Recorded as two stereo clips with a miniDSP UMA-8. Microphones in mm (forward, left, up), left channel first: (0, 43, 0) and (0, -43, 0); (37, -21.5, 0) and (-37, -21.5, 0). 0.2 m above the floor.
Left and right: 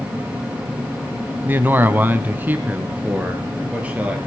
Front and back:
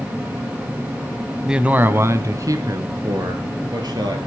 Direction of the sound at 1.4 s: 110° right.